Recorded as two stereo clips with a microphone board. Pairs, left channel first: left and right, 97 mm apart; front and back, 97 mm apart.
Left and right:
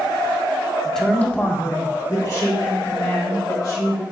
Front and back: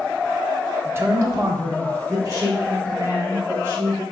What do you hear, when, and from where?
0.8 s a man speaking: straight behind, 0.6 m; by 4.0 s 130° left, 2.5 m